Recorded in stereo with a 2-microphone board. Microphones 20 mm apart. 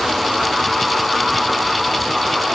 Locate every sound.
Only background noise.